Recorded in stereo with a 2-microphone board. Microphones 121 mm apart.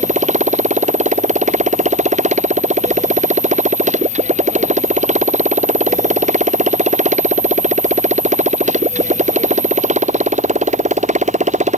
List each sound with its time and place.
0.0 s a motorcycle: 80° right